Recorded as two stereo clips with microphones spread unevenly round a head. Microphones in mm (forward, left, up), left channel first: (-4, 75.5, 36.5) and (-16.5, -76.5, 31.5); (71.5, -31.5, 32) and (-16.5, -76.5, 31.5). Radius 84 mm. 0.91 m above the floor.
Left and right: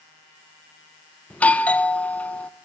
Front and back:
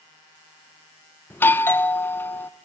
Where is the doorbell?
15° left, 0.8 m.